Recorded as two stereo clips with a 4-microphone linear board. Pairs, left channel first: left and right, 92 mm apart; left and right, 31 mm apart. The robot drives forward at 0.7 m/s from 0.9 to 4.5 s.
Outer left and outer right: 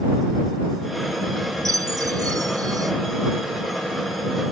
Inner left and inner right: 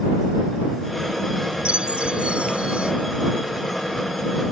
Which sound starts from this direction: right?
A chime, at 1.6 s.